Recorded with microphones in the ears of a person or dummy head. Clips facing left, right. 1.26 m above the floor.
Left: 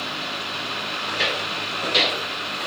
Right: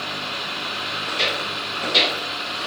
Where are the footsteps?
10° right (ahead or behind), 4 m; by 2.7 s 15° left (ahead or behind), 4 m.